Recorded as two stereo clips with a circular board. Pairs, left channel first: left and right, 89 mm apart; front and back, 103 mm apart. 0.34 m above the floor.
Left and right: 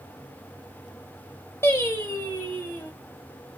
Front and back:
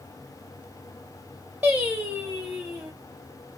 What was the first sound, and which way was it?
Singing, 115° left.